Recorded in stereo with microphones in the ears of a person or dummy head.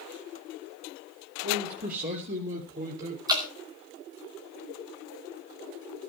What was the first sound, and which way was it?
A man speaking, 55° right (ahead or behind).